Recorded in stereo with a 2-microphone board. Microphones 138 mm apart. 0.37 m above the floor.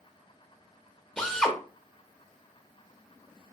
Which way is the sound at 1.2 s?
5° left (ahead or behind).